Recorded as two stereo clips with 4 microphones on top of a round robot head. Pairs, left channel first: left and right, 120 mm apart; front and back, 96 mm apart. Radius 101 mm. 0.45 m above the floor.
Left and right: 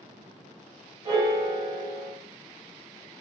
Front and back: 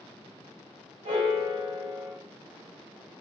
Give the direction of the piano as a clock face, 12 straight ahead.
5 o'clock.